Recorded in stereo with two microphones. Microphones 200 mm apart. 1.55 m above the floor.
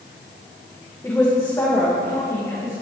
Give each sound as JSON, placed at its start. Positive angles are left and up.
{"t": 1.0, "sound": "a woman speaking", "side_deg": 15, "distance_m": 1.6}